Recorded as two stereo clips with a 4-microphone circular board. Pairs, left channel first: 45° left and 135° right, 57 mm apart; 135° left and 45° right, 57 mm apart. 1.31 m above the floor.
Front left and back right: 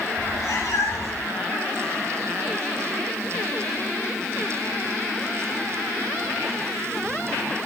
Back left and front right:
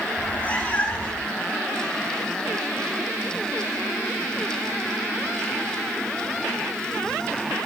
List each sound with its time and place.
0.2 s a cat meowing: 70° left, 5.5 m